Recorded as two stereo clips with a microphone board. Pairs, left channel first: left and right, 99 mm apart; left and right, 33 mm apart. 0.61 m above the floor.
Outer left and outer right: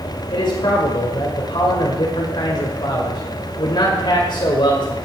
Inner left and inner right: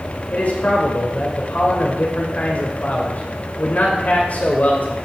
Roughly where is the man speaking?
Left.